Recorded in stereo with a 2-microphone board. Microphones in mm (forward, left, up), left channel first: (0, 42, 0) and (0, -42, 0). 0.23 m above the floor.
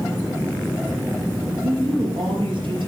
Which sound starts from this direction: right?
A woman speaking, at 1.6 s.